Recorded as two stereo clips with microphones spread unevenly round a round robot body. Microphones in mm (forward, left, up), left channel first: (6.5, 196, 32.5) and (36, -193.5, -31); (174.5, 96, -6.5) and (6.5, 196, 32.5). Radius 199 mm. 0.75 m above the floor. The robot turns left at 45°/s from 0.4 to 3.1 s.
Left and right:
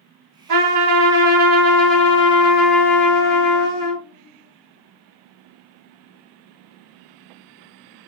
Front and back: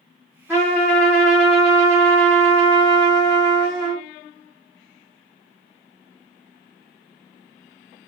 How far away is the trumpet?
About 1.5 m.